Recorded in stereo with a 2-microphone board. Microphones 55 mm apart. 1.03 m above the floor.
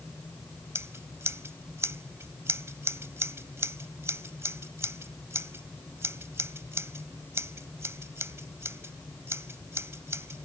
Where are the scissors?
60° right (ahead or behind).